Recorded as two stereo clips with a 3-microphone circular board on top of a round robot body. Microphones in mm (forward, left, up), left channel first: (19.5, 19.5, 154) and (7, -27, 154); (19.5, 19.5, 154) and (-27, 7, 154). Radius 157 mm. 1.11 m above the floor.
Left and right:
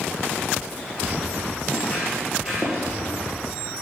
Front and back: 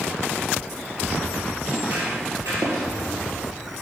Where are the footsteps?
130° left, 1.3 m; by 2.9 s 170° right, 1.6 m.